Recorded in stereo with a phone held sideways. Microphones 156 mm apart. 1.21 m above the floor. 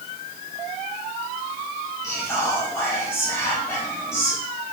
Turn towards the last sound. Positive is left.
turn(degrees=15)  # may be behind; listen again after turning